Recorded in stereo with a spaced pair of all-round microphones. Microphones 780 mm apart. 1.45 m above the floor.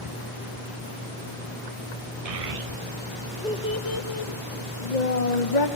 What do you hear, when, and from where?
2.2 s a child speaking: 50° right (ahead or behind), 0.8 m; by 5.7 s 65° left (ahead or behind), 1.4 m